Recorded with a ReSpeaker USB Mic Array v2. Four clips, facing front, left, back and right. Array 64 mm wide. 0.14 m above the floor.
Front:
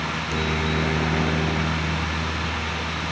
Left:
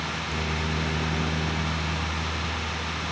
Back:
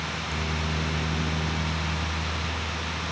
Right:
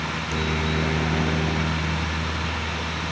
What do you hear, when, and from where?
0.0 s a helicopter: 30° right